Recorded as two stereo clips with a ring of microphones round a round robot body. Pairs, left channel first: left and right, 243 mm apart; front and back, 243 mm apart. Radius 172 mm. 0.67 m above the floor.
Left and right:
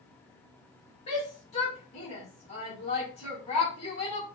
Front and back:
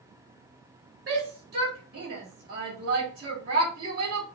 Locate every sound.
1.1 s a shout: 140° left, 1.4 m